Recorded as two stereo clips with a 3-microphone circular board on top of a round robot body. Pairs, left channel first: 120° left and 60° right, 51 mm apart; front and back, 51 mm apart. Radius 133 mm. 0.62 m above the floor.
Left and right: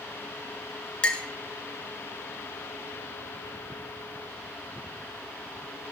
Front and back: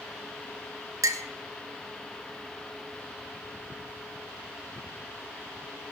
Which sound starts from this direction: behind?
A clink, at 1.0 s.